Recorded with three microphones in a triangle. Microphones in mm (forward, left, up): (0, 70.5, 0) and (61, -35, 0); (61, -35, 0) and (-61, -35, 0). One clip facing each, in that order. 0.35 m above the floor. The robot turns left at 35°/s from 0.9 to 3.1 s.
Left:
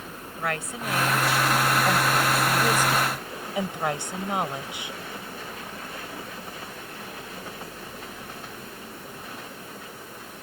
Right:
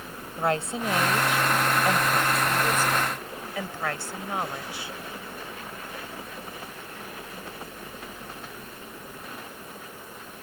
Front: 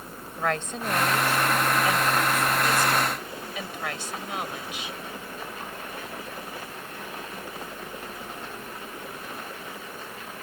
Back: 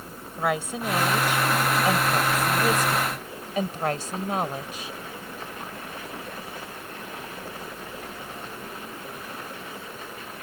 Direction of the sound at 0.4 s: 105° right.